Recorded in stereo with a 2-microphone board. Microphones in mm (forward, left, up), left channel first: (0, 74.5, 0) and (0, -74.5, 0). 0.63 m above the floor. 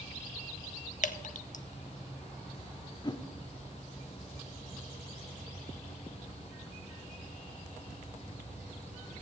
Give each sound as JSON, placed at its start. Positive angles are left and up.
{"t": 1.0, "sound": "dripping", "side_deg": 60, "distance_m": 0.6}
{"t": 3.0, "sound": "a whoosh", "side_deg": 30, "distance_m": 0.5}